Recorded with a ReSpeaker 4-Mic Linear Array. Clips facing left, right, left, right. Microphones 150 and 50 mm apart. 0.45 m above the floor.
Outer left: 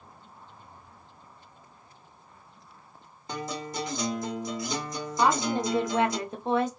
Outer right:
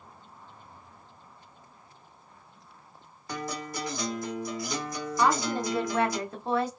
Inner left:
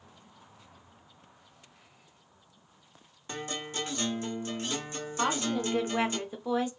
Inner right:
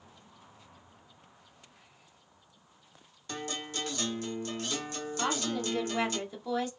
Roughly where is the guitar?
Left.